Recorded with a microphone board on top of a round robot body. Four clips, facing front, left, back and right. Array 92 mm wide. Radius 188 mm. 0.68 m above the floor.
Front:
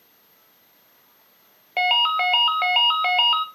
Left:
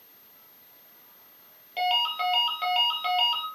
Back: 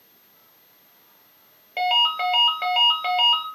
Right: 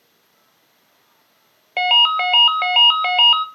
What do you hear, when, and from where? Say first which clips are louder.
1.8 s a ringtone: right 8 dB, front 1 dB; 65° right, 0.7 m